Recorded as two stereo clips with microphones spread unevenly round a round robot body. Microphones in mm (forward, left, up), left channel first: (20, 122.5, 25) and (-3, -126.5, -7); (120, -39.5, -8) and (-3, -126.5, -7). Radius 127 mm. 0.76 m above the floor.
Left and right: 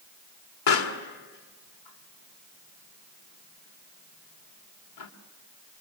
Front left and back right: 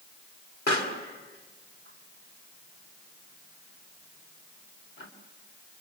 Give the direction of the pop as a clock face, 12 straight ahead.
9 o'clock.